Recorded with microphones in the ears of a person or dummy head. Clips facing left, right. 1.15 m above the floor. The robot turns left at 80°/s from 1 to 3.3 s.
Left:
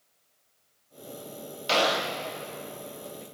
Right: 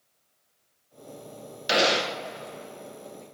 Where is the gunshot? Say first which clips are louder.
Right 2 dB; 20° right, 0.5 m; by 2.2 s 60° right, 0.5 m.